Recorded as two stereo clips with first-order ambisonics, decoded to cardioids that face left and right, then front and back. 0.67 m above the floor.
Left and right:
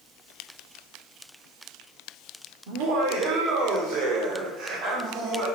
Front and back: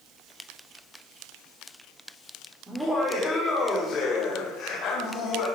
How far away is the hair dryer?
I don't hear a hair dryer.